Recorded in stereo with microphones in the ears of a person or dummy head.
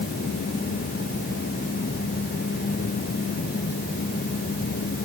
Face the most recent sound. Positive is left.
No sound to turn to.